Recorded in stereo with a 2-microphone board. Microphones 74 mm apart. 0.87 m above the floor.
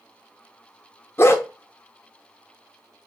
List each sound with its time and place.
1.2 s a dog barking: 30° left (ahead or behind), 0.5 m